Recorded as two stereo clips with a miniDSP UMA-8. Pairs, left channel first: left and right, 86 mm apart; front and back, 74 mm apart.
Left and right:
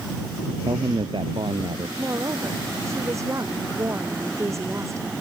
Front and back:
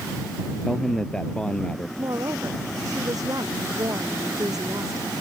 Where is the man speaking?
80° right; by 1.9 s 75° right.